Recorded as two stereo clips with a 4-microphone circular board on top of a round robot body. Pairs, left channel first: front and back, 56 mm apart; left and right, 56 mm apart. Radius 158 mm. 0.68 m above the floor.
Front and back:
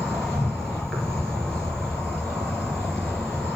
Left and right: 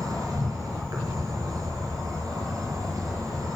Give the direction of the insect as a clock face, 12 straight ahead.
3 o'clock.